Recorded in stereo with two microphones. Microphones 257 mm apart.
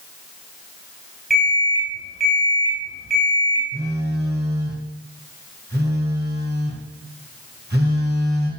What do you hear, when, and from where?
1.3 s an alarm clock: centre (ahead or behind), 3.5 m
3.7 s a phone buzzing: 40° right (ahead or behind), 1.9 m